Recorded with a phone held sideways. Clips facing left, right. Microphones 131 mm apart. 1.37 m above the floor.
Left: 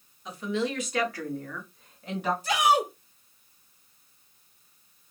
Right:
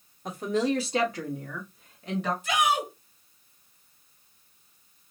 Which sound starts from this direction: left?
A shout, at 2.4 s.